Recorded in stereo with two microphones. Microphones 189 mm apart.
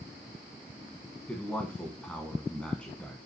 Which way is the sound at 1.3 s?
5° left (ahead or behind).